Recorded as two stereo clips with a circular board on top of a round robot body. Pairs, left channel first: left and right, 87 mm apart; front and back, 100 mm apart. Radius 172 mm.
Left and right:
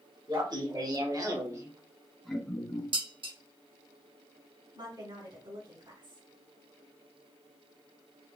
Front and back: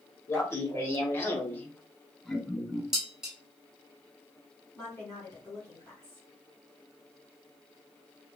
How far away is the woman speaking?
About 3.5 m.